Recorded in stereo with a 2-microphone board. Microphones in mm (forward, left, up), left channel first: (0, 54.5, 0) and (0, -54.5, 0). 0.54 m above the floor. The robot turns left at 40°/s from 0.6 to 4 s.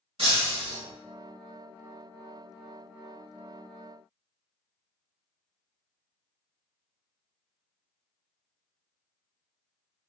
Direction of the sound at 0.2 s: 65° right (ahead or behind).